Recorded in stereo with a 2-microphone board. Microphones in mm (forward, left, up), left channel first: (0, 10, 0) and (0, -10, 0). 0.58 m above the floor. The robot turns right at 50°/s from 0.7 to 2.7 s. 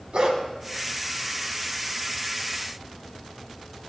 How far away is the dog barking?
About 2 m.